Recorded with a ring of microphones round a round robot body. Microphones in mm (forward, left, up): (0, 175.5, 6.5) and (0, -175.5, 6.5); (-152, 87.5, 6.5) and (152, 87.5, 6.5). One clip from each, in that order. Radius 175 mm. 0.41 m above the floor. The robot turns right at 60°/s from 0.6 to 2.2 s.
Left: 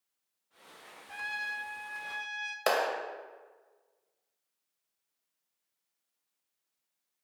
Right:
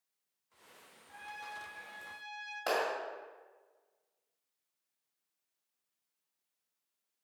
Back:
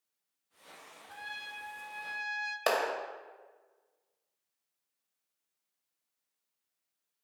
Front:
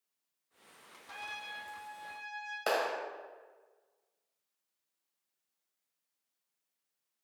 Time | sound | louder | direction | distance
1.1 | a trumpet | left 10 dB, even | 70° left | 0.7 m
2.7 | a clap | left 4 dB, back 2 dB | 130° left | 1.7 m